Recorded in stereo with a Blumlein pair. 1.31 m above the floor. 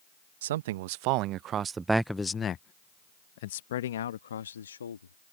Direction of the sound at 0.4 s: 60° right.